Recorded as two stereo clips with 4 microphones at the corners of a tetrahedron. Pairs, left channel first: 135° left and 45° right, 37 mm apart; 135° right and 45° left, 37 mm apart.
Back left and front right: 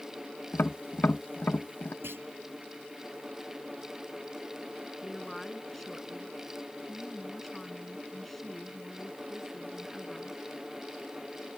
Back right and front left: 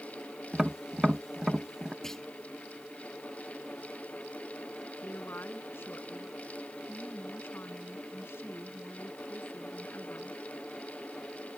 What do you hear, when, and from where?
0.5 s tapping: 120° left
2.0 s a clunk: 55° right
5.0 s a woman speaking: 140° right